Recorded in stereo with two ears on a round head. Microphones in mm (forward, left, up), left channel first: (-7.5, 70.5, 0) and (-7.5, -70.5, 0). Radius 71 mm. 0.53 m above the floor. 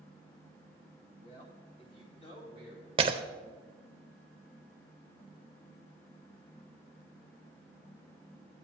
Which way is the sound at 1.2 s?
35° left (ahead or behind).